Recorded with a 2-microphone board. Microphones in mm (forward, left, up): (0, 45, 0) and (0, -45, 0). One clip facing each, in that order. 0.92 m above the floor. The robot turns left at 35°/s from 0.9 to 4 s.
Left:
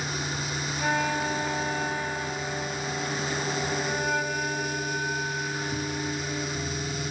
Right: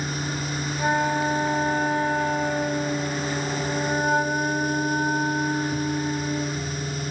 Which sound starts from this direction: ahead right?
A flute, at 0.8 s.